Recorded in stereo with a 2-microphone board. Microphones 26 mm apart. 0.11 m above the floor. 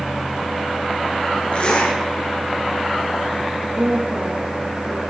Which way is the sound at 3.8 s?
70° right (ahead or behind).